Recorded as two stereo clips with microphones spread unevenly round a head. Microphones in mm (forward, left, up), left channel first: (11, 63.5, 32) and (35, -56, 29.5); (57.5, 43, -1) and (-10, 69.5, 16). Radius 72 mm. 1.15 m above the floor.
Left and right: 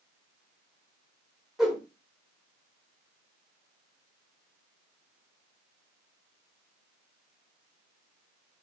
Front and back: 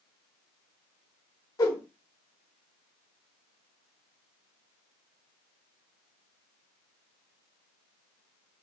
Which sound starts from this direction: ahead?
A whoosh, at 1.6 s.